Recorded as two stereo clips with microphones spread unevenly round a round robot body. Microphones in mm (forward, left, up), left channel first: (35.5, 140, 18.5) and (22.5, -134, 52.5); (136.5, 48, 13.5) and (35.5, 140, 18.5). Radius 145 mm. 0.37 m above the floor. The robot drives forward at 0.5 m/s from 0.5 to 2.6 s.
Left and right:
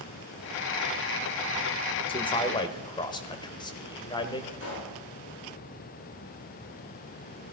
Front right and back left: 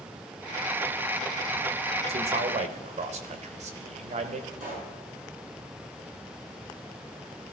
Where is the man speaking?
140° left, 1.1 m; by 4.5 s 150° left, 1.2 m.